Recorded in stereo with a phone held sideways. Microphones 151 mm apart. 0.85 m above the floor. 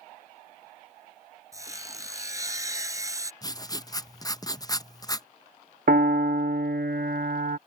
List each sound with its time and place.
1.5 s sawing: 20° right (ahead or behind)
3.4 s writing: 25° left (ahead or behind)
5.9 s a piano: 75° right (ahead or behind)